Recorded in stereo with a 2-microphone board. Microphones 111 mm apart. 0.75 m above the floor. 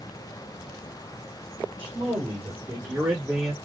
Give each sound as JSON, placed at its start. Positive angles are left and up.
{"t": 1.8, "sound": "a man speaking", "side_deg": -50, "distance_m": 4.0}